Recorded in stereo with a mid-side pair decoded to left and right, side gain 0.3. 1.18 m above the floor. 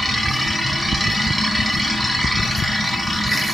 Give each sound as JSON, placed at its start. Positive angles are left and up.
{"t": 0.0, "sound": "a machine running", "azimuth_deg": -10, "distance_m": 4.0}